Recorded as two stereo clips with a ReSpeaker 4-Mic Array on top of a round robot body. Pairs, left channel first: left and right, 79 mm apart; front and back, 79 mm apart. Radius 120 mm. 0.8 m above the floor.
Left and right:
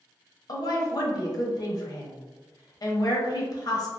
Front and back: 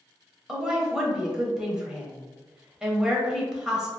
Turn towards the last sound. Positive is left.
turn(degrees=100)